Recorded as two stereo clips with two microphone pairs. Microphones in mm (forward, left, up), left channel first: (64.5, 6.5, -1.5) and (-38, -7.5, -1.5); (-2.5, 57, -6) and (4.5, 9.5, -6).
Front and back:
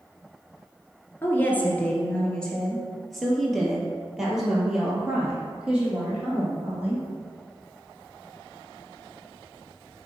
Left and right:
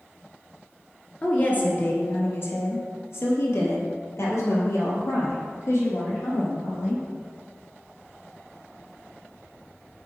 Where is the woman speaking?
65° left, 1.4 m; by 7.0 s 110° left, 3.5 m.